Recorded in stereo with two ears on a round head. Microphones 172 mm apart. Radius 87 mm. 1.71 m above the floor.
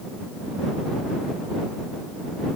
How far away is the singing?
No singing in this recording.